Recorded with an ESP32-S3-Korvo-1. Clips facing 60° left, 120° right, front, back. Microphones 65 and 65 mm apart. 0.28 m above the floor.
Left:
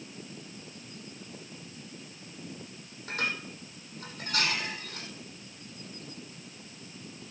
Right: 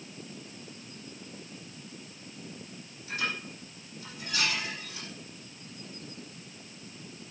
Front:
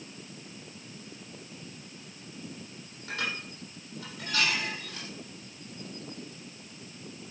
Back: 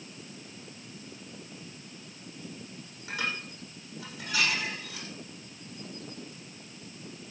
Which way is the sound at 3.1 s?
95° left.